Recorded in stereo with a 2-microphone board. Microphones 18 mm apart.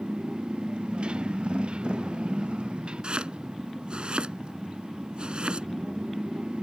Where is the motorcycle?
80° right.